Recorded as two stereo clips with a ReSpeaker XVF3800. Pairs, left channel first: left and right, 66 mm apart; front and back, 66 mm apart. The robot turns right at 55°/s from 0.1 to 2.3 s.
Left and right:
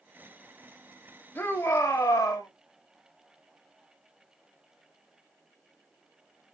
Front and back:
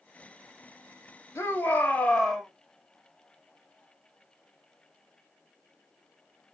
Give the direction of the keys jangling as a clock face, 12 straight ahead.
I don't hear keys jangling.